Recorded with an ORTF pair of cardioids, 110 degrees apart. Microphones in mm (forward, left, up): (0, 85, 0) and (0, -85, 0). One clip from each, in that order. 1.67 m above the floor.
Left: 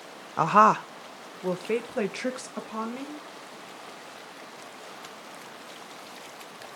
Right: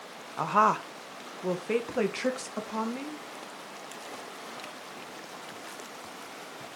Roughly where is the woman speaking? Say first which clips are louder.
Left 5 dB; ahead left.